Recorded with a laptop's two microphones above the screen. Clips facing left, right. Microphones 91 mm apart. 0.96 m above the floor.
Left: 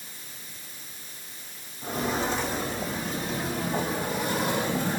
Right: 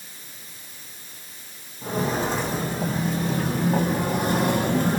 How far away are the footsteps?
About 2.5 m.